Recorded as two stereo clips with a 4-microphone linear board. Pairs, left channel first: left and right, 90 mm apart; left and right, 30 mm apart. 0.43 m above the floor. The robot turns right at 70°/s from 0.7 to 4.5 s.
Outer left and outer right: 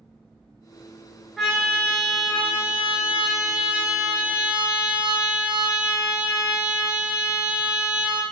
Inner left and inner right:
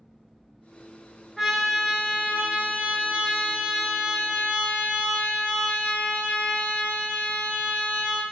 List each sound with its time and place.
1.4 s a trumpet: 175° left, 1.4 m; by 8.2 s 35° left, 1.4 m